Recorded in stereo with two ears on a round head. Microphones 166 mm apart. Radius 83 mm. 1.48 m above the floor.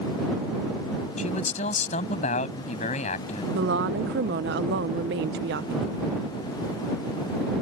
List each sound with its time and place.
1.2 s a man speaking: 35° left (ahead or behind)
3.5 s a woman speaking: 60° right (ahead or behind)